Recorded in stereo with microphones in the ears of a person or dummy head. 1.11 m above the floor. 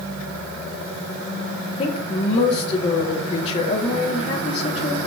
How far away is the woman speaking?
About 2 m.